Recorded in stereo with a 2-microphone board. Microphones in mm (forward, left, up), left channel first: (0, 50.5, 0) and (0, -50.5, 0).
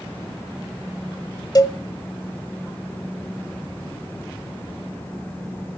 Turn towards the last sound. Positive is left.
turn(degrees=35)  # may be behind; listen again after turning